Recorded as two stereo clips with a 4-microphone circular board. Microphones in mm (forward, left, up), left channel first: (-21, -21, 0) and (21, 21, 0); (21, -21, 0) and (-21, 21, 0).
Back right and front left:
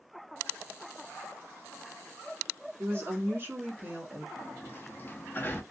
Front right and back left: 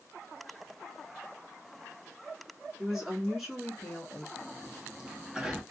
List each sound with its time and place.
2.8 s a woman speaking: 65° left, 1.5 m; by 4.3 s 20° left, 1.2 m
4.4 s a sliding door: 155° right, 0.5 m